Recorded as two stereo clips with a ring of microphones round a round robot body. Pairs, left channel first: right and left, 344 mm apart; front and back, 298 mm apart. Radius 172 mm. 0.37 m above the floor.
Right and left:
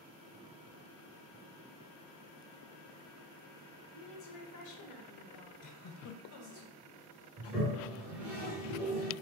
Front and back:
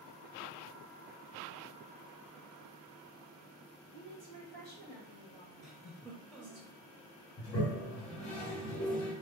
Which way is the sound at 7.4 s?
5° left.